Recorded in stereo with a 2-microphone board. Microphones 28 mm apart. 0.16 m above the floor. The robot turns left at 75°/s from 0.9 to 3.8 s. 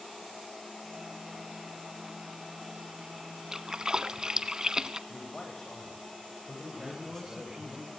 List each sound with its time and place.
3.5 s a splash: 15° right (ahead or behind), 0.9 m; by 5.0 s 25° right (ahead or behind), 0.9 m
5.1 s a man speaking: 20° left (ahead or behind), 9.5 m
6.8 s a man speaking: 20° right (ahead or behind), 1.6 m